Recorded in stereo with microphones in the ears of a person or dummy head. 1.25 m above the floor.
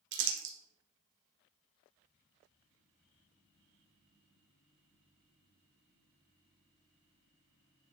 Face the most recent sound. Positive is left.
turn(degrees=-65)  # may be behind; listen again after turning